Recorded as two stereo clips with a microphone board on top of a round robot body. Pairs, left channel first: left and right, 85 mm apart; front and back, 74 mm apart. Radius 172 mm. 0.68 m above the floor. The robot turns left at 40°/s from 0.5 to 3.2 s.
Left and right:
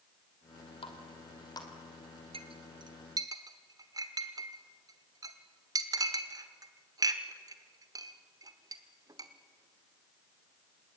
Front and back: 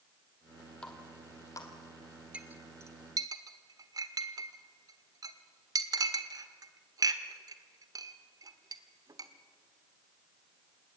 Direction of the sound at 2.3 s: 105° right.